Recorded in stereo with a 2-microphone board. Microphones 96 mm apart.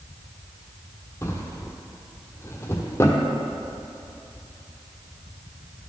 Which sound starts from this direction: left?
A drawer, at 1.2 s.